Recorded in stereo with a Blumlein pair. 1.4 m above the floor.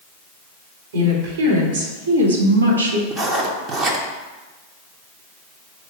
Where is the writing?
20° right, 1.2 m.